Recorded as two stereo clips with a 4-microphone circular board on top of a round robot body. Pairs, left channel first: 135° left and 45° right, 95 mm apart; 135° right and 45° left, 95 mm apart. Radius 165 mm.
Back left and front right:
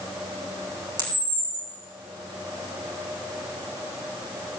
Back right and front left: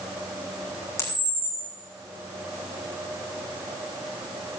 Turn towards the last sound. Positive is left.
turn(degrees=-75)